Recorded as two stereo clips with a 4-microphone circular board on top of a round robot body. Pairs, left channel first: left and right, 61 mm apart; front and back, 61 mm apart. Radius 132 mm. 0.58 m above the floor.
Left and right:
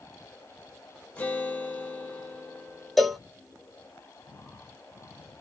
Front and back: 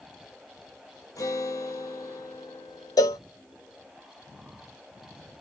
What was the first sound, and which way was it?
A guitar, 25° left.